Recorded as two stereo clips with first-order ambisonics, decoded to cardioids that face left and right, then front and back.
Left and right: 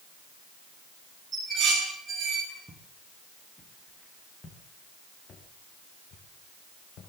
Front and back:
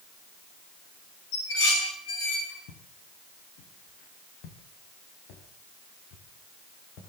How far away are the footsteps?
About 6 m.